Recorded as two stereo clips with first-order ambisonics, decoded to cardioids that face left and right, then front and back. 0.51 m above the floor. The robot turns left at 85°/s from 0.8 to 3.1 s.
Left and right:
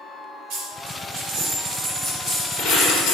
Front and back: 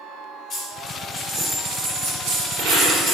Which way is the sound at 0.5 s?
60° right.